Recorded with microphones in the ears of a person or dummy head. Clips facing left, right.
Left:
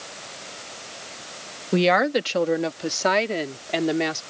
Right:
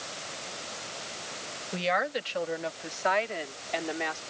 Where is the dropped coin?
I don't hear a dropped coin.